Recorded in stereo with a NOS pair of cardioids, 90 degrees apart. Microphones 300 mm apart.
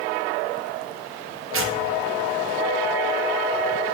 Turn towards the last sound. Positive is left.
turn(degrees=-45)